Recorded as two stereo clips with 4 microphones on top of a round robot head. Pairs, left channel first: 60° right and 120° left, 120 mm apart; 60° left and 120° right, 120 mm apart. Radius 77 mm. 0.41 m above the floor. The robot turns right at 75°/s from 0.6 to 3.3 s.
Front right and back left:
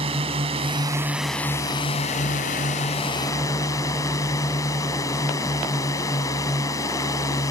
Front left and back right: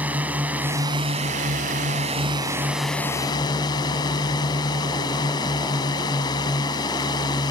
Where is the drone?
160° left; by 7.5 s 5° left.